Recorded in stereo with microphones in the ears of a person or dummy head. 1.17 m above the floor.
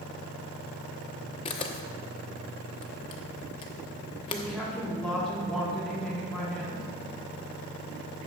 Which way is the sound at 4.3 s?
5° left (ahead or behind).